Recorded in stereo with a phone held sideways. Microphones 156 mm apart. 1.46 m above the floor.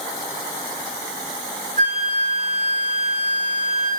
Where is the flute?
50° right (ahead or behind), 4.5 m.